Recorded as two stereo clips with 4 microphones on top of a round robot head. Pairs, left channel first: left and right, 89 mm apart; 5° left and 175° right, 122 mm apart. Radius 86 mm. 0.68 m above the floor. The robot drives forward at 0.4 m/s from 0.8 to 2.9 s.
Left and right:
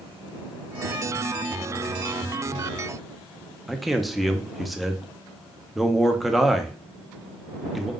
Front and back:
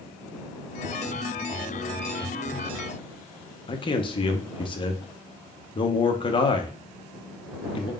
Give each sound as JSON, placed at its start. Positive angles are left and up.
{"t": 3.7, "sound": "a man speaking", "azimuth_deg": 0, "distance_m": 0.7}